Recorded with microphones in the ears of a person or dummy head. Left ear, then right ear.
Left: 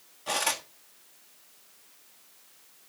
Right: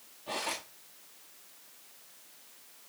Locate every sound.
0.3 s cutlery clinking: 55° left (ahead or behind), 1.5 m